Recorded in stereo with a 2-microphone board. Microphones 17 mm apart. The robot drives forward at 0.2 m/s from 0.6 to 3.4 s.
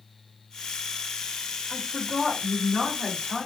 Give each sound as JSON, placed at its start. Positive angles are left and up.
{"t": 1.7, "sound": "a woman speaking", "side_deg": -50, "distance_m": 1.8}